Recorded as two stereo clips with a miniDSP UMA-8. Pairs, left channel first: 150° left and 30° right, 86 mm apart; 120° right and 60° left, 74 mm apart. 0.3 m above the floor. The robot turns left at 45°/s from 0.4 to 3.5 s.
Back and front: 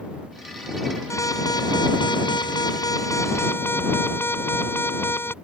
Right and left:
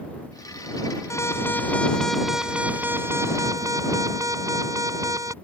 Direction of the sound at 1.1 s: 160° right.